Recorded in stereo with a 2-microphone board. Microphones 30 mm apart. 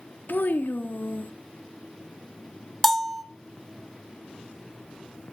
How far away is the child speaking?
About 0.6 m.